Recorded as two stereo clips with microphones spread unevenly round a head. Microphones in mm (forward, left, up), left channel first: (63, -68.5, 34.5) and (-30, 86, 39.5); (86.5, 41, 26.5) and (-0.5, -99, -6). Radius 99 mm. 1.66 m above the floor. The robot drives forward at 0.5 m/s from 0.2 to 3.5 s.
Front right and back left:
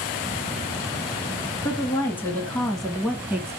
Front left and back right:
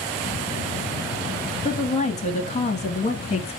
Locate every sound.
1.6 s a woman speaking: 15° left, 1.4 m; by 3.6 s 55° left, 0.7 m